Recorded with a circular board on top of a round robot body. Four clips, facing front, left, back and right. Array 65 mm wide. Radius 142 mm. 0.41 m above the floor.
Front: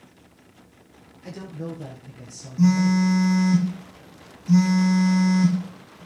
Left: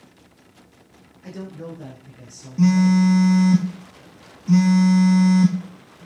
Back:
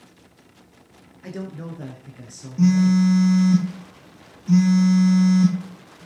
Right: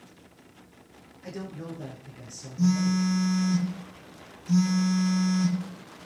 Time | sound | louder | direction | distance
1.2 | a man speaking | left 3 dB, back 1 dB | 175° left | 8 m
2.6 | a phone buzzing | left 8 dB, back 2 dB | 105° left | 2.5 m